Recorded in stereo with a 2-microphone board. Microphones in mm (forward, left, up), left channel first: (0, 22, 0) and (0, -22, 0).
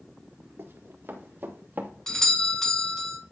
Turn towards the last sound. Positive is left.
turn(degrees=10)  # may be behind; listen again after turning